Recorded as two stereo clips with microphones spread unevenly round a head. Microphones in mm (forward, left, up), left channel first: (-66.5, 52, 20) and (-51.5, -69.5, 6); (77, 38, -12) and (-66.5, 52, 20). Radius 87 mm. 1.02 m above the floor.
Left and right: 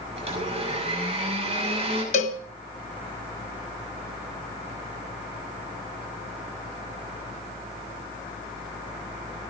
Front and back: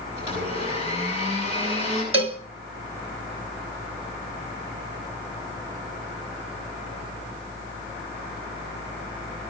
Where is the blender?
125° right, 8 m.